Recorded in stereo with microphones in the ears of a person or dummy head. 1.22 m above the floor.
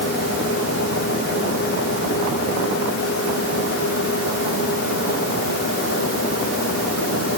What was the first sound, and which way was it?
Only background noise.